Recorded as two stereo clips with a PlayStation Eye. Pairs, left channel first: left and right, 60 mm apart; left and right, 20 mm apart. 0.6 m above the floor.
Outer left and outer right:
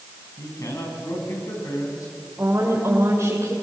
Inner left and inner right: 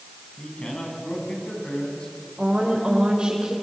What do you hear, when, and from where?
0.4 s a man speaking: 70° left (ahead or behind), 5.5 m
2.4 s a woman speaking: 50° right (ahead or behind), 2.5 m